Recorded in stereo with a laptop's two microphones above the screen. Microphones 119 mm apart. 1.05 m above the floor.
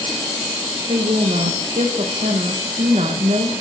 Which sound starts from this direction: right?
A woman speaking, at 0.9 s.